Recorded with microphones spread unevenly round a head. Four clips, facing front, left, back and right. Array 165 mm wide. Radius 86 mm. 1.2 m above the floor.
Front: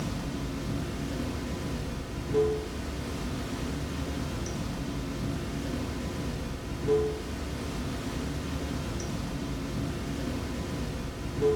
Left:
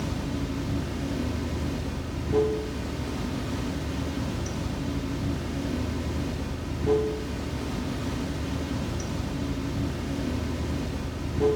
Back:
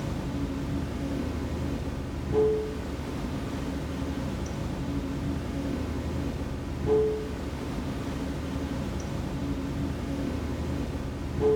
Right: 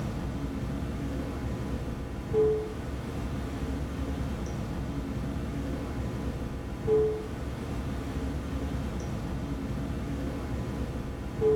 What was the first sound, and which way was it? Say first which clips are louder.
Running water: left 4 dB, back 2 dB; 95° left.